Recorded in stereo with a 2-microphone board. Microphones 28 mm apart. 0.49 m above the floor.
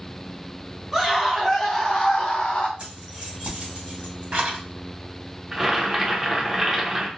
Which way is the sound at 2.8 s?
60° right (ahead or behind).